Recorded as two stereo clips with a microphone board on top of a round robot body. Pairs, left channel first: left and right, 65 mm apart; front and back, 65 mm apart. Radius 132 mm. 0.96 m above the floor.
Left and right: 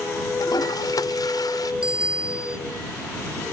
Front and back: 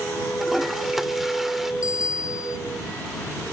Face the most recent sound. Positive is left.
turn(degrees=-15)